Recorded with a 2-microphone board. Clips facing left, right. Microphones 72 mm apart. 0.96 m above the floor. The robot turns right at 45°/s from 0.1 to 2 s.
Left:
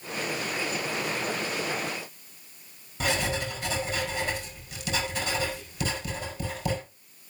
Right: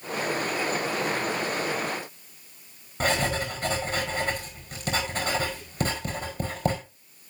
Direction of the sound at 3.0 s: 45° right (ahead or behind).